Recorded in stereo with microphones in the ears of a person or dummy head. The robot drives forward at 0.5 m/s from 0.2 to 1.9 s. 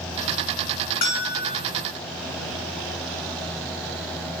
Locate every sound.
1.0 s a bell: 50° left (ahead or behind), 3 m; by 1.6 s 45° left (ahead or behind), 3 m